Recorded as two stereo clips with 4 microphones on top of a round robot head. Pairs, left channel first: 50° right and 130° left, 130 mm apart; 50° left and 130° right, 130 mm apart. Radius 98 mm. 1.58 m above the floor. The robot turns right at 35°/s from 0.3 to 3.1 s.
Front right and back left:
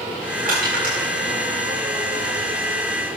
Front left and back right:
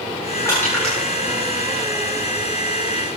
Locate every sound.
0.5 s crushing: 120° left, 9 m; by 1.1 s 140° left, 9 m